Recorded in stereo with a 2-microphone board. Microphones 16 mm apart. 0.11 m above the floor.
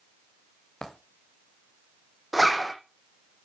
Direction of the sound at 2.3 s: 5° right (ahead or behind).